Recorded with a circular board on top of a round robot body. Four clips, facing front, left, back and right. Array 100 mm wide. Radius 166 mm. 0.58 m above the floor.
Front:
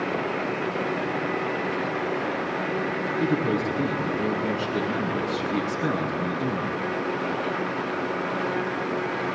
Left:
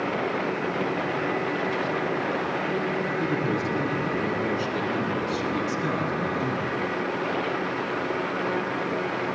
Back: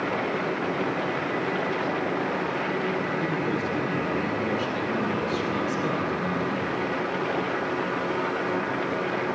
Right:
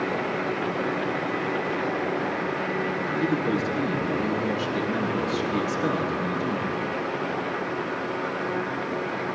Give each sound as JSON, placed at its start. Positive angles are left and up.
{"t": 3.2, "sound": "a man speaking", "azimuth_deg": 20, "distance_m": 9.5}